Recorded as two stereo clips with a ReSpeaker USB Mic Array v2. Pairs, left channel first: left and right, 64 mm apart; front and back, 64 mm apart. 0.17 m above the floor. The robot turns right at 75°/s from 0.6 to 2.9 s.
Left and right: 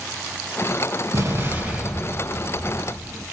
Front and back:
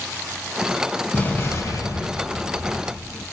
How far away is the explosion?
About 2.5 m.